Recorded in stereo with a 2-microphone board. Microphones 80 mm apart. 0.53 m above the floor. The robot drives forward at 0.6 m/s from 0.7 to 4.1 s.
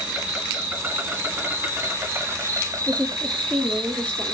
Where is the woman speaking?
20° left (ahead or behind), 1.0 m; by 4.3 s 15° left (ahead or behind), 1.2 m.